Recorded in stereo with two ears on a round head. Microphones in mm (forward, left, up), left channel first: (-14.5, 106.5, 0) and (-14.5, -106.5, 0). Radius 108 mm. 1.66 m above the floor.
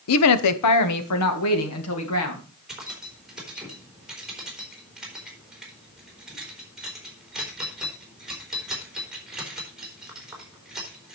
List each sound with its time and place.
0.1 s a woman speaking: 70° left (ahead or behind), 0.9 m; by 2.4 s 60° left (ahead or behind), 3 m
2.7 s keys jangling: centre (ahead or behind), 3.5 m